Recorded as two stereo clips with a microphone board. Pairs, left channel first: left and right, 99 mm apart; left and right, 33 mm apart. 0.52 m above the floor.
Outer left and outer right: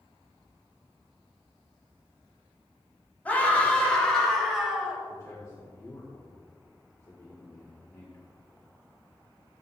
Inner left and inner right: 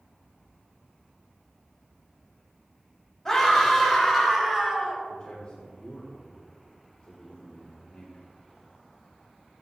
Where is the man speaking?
30° left (ahead or behind), 1.6 m.